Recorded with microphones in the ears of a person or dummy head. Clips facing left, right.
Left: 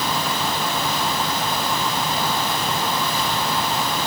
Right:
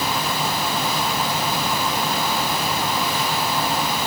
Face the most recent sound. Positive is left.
No sound to turn to.